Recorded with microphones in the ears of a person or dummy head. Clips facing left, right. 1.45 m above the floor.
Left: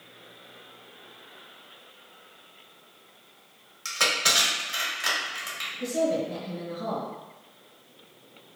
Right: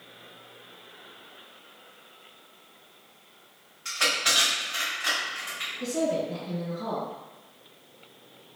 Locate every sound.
3.9 s crushing: 55° left (ahead or behind), 1.0 m
5.8 s a woman speaking: 25° left (ahead or behind), 1.8 m